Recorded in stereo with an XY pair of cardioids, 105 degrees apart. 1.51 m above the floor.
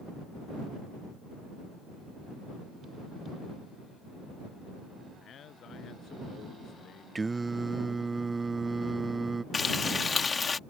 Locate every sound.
5.2 s a man speaking: 60° left; by 7.0 s 65° left
7.2 s singing: 25° right
9.5 s frying: 30° left